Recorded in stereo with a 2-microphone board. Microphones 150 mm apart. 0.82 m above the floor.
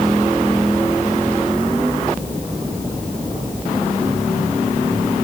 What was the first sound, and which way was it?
Only background noise.